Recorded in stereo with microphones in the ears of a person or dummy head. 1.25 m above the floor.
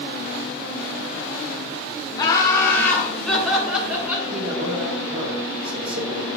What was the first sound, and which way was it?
Laughter, 20° left (ahead or behind).